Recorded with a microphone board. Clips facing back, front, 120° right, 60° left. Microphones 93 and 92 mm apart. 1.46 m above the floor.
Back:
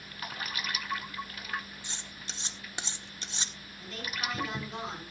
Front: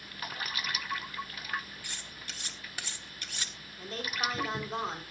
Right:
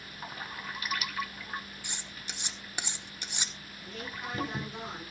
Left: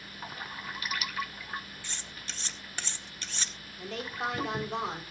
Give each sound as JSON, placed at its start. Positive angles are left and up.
{"t": 1.8, "sound": "cutlery clinking", "azimuth_deg": -170, "distance_m": 0.8}
{"t": 3.8, "sound": "a woman speaking", "azimuth_deg": 50, "distance_m": 4.0}